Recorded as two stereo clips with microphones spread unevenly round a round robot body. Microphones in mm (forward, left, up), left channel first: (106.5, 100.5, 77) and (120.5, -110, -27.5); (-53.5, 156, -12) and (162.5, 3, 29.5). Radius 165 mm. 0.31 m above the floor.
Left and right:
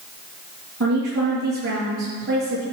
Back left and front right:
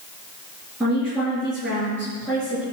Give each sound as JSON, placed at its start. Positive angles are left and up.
{"t": 0.8, "sound": "a woman speaking", "azimuth_deg": -125, "distance_m": 6.0}